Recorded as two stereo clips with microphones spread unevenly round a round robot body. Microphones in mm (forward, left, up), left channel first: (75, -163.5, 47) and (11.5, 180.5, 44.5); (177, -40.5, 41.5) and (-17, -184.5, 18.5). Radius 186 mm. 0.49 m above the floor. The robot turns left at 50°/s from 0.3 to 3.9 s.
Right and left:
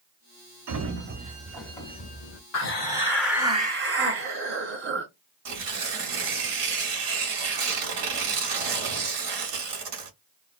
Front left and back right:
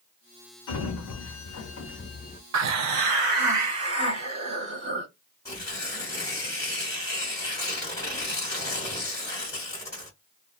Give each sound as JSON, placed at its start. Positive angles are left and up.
{"t": 0.7, "sound": "a sliding door", "azimuth_deg": 60, "distance_m": 0.9}
{"t": 2.5, "sound": "a hiss", "azimuth_deg": -135, "distance_m": 0.5}
{"t": 5.5, "sound": "tearing paper", "azimuth_deg": 120, "distance_m": 1.1}